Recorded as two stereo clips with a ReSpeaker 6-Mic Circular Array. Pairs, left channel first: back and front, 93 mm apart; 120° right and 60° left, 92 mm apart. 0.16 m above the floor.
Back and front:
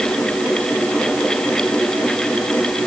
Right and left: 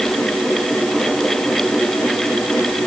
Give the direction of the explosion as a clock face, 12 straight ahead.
No explosion in this recording.